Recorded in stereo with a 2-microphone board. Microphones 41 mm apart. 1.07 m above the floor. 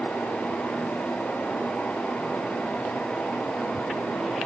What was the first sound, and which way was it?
Only background noise.